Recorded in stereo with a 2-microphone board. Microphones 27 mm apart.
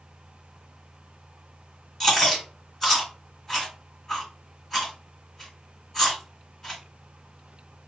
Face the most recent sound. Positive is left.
turn(degrees=10)  # may be behind; listen again after turning